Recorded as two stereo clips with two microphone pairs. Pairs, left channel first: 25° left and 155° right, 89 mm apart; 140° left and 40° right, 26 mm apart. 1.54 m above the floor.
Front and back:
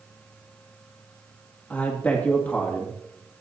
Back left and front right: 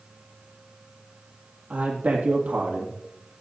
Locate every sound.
1.7 s a man speaking: 50° right, 2 m